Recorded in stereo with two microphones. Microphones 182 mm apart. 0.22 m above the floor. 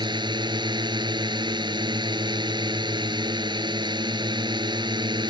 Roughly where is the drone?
Right.